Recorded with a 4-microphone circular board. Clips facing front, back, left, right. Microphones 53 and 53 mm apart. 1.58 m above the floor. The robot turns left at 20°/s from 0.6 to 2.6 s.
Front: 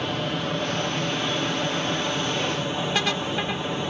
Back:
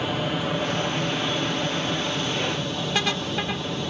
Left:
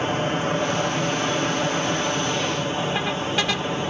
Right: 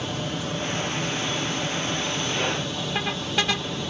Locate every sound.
0.0 s an aircraft: 100° left; by 3.9 s 60° left